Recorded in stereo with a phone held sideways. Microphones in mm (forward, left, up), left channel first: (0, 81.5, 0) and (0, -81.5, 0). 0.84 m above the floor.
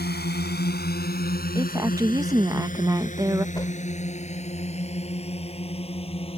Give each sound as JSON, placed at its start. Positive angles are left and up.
{"t": 0.0, "sound": "a drone", "side_deg": 85}
{"t": 1.6, "sound": "a woman speaking", "side_deg": -20}
{"t": 3.5, "sound": "a whoosh", "side_deg": 25}